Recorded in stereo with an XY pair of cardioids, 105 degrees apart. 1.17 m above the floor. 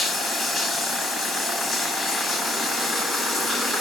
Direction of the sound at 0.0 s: 55° left.